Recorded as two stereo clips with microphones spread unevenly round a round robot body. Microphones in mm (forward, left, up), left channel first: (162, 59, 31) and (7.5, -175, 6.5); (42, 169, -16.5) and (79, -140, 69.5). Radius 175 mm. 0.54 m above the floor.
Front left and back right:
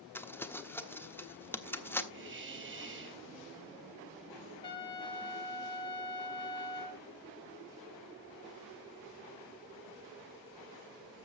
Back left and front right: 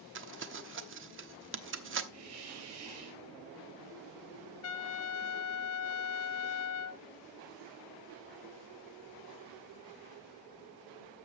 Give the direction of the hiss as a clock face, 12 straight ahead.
3 o'clock.